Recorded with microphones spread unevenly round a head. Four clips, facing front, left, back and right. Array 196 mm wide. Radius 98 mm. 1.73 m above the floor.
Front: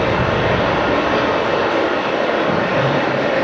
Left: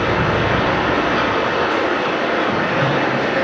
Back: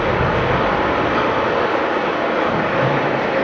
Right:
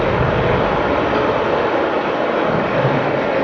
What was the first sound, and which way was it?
Running water, 45° right.